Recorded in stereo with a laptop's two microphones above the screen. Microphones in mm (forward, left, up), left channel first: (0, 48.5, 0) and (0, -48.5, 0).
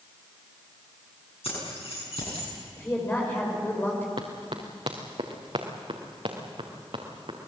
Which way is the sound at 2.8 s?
20° left (ahead or behind).